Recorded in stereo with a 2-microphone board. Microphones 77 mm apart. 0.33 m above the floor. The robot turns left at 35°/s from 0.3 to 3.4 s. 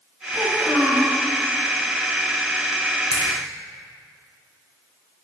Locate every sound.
0.3 s a child speaking: 5° right (ahead or behind), 1.8 m; by 1.1 s 20° left (ahead or behind), 1.8 m
3.1 s a splash: 50° left (ahead or behind), 2.5 m; by 3.3 s 55° left (ahead or behind), 2.5 m